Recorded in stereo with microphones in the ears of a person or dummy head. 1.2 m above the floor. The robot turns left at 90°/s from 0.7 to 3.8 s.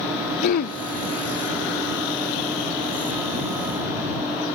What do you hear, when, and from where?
0.4 s throat clearing: 50° left (ahead or behind); by 0.8 s 55° left (ahead or behind)